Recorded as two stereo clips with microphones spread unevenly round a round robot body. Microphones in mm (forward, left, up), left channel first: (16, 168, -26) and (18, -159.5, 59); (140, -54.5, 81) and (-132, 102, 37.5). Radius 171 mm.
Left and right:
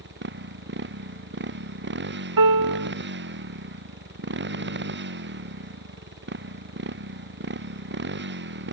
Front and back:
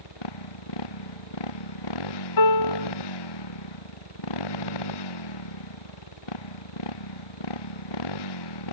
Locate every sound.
0.0 s a motorcycle: 30° right
2.4 s a piano: 50° right